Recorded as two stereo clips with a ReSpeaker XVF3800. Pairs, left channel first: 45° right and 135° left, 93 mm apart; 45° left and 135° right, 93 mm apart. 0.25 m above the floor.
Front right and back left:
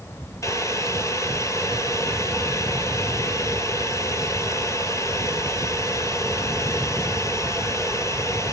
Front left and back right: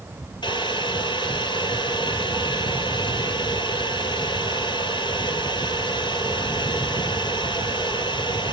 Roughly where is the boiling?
Ahead.